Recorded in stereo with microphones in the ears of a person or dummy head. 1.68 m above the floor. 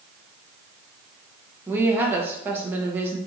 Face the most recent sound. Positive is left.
turn(degrees=-15)  # may be behind; listen again after turning